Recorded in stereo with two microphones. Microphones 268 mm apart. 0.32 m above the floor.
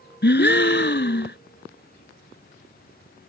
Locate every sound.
0.2 s a gasp: 40° left (ahead or behind)